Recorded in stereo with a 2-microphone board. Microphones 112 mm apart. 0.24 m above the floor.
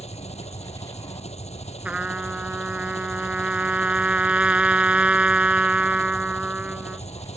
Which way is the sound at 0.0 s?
75° left (ahead or behind).